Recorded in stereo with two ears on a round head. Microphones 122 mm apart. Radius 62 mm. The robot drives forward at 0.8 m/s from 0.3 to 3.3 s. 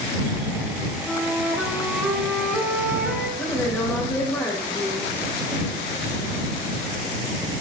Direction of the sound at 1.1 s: Centre (ahead or behind).